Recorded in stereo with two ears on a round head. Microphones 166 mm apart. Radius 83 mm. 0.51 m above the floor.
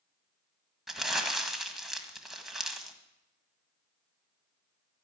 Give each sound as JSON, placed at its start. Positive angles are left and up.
{"t": 0.9, "sound": "crumpling", "side_deg": 0, "distance_m": 1.6}